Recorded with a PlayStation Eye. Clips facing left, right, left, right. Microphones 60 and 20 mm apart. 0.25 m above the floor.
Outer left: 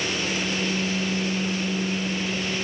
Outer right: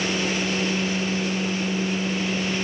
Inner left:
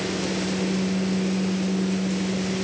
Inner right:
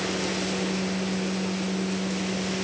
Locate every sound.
Only background noise.